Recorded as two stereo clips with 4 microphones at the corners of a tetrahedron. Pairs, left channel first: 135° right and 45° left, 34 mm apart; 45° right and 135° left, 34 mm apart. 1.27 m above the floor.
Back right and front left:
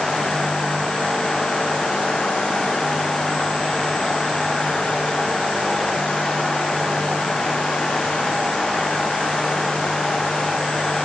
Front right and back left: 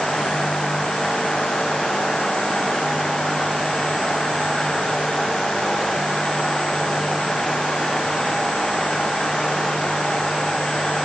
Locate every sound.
Only background noise.